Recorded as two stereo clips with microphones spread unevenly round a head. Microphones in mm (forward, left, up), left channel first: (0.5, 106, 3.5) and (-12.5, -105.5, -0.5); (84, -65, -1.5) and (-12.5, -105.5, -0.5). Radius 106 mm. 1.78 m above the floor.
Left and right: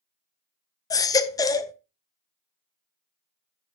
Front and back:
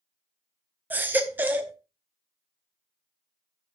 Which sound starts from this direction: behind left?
A baby crying, at 0.9 s.